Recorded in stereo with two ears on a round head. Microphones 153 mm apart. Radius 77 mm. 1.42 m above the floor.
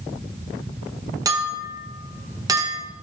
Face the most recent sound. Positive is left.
turn(degrees=-20)  # may be behind; listen again after turning